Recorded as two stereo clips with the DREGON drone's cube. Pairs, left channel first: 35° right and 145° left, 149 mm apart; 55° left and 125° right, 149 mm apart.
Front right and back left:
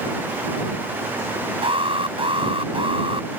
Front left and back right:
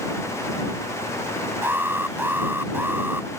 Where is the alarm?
170° left.